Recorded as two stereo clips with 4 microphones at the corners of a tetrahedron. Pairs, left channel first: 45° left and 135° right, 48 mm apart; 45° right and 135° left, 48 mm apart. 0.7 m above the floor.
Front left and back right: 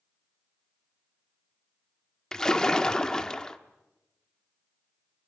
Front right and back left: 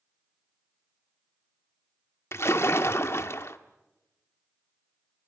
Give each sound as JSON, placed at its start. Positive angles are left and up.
{"t": 2.3, "sound": "a splash", "azimuth_deg": -30, "distance_m": 1.1}